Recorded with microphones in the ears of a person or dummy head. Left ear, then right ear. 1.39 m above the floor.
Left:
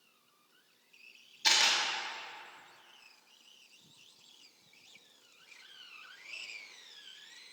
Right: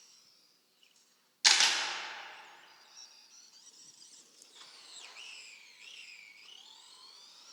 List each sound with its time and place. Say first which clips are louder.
1.4 s a camera shutter: right 1 dB; 50° right (ahead or behind), 1.6 m